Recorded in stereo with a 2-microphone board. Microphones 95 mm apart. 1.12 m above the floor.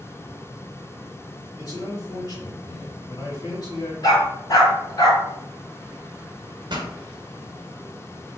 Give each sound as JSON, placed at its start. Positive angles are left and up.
{"t": 1.6, "sound": "a man speaking", "side_deg": 50, "distance_m": 2.5}
{"t": 4.0, "sound": "a dog barking", "side_deg": 45, "distance_m": 2.5}
{"t": 6.7, "sound": "a pop", "side_deg": -55, "distance_m": 0.9}